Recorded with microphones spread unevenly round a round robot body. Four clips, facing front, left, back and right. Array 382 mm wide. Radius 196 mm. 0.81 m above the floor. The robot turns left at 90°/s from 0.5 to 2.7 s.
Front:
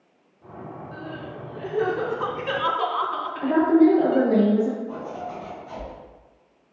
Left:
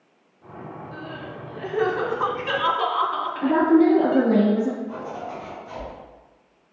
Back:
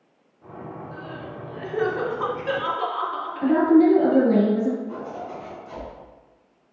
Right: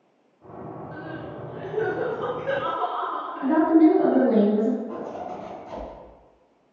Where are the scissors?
I don't hear scissors.